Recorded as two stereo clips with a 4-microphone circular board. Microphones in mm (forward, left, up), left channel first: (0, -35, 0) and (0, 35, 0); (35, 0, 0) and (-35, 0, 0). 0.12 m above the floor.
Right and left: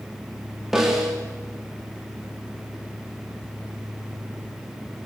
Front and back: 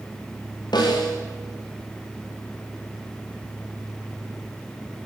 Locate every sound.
0.7 s a snare drum: 5° left, 6.5 m